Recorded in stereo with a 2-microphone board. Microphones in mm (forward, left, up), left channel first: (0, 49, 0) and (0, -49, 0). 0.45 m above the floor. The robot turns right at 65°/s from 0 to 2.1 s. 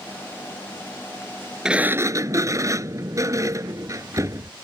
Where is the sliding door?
5° right (ahead or behind); by 4.5 s 35° right (ahead or behind).